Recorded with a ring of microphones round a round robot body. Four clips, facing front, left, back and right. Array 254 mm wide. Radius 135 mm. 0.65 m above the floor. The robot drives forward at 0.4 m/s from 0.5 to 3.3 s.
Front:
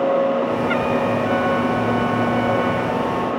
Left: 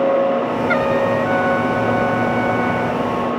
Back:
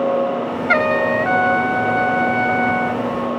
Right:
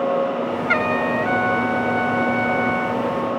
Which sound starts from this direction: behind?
A trumpet, at 0.7 s.